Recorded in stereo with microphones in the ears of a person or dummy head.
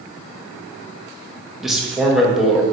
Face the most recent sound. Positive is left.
turn(degrees=-5)  # may be behind; listen again after turning